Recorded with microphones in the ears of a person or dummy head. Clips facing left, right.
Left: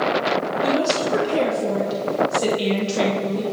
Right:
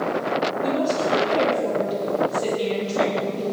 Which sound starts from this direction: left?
A woman speaking, at 0.6 s.